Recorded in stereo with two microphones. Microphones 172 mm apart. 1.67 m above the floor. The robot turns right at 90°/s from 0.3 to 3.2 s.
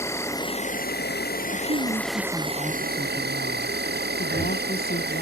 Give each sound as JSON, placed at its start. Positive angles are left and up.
{"t": 0.0, "sound": "an insect", "azimuth_deg": 15}
{"t": 1.5, "sound": "a woman speaking", "azimuth_deg": -85}
{"t": 4.2, "sound": "breathing", "side_deg": -85}